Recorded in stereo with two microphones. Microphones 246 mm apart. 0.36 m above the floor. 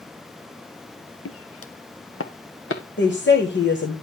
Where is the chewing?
I don't hear chewing.